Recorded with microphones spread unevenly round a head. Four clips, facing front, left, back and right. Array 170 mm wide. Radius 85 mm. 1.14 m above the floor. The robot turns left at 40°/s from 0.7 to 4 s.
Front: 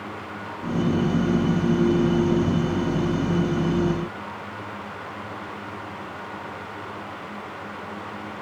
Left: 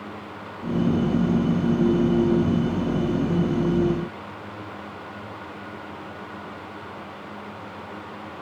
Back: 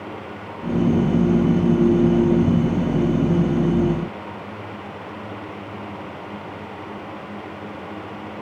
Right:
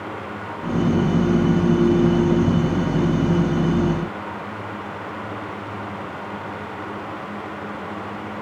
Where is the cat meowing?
No cat meowing in this recording.